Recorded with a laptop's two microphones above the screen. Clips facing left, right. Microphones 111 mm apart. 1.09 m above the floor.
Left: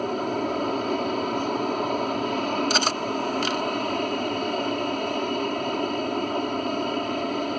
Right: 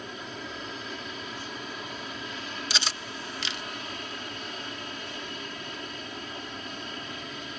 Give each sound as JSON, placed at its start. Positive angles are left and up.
{"t": 0.0, "sound": "an aircraft", "side_deg": 55}
{"t": 2.7, "sound": "cutlery clinking", "side_deg": 50}